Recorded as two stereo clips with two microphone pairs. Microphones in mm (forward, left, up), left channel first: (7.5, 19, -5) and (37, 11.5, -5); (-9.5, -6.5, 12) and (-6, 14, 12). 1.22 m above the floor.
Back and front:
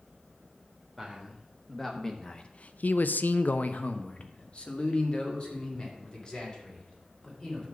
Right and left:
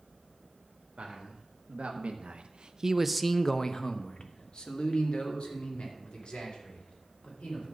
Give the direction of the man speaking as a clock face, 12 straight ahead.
9 o'clock.